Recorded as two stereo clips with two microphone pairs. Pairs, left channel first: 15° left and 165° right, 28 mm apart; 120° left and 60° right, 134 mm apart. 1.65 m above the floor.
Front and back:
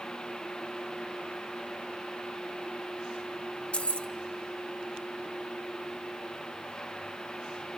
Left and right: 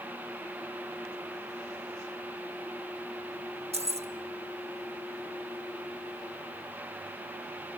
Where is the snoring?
No snoring in this recording.